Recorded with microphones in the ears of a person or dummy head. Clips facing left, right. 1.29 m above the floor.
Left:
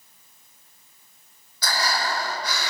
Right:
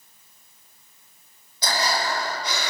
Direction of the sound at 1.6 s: 25° right (ahead or behind).